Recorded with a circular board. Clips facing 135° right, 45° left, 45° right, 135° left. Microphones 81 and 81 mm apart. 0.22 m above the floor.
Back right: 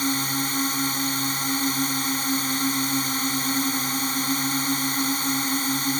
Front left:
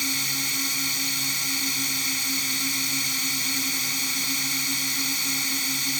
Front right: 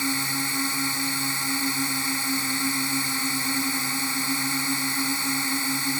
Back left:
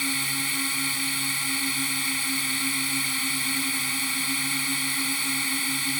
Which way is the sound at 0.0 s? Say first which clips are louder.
Back right 7 dB, front right 3 dB; 105° right.